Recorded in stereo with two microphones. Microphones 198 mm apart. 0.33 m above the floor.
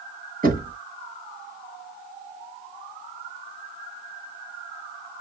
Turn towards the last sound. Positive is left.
turn(degrees=-45)  # may be behind; listen again after turning